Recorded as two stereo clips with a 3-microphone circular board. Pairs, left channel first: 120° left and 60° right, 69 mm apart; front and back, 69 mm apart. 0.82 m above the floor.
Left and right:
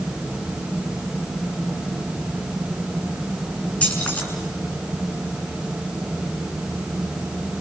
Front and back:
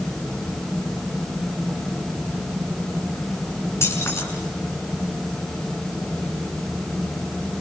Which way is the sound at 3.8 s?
50° left.